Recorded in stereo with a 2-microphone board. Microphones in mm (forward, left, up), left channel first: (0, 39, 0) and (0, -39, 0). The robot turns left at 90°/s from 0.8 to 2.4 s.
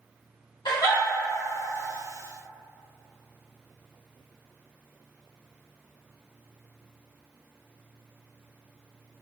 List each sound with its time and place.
0.7 s a giggle: 70° left (ahead or behind), 1.2 m; by 1.0 s 60° left (ahead or behind), 1.2 m